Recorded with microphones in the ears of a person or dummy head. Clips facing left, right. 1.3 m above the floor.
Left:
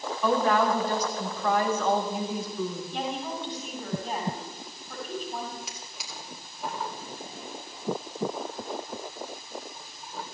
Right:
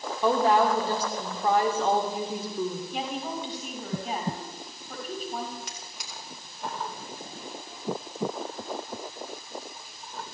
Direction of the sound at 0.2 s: 30° right (ahead or behind).